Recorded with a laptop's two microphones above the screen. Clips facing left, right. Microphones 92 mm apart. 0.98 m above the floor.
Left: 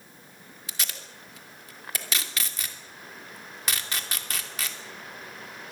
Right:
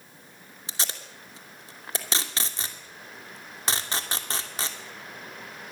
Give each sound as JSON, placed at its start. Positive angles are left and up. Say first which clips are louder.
{"t": 0.7, "sound": "tape being pulled", "louder": "right 2 dB", "side_deg": -30, "distance_m": 2.5}